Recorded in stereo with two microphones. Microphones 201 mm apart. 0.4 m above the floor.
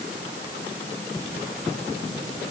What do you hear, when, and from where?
Only background noise.